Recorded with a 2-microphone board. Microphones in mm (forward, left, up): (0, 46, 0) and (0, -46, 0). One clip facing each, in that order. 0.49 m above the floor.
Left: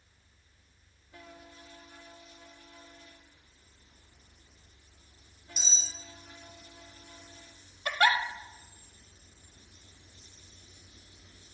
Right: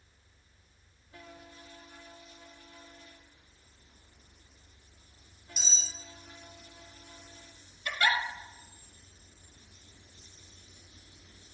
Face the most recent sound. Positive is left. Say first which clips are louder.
# left 3 dB
turn(degrees=60)  # may be behind; listen again after turning